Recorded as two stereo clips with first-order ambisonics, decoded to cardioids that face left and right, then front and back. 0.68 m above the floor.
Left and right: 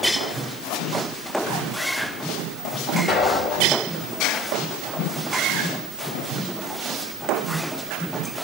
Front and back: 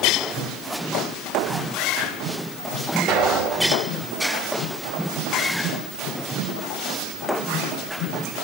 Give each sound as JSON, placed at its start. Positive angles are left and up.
{"t": 3.1, "sound": "an explosion", "azimuth_deg": 155, "distance_m": 2.0}